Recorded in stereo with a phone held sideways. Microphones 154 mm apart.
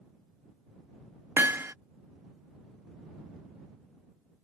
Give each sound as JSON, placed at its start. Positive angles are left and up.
{"t": 1.4, "sound": "hammering", "side_deg": -15}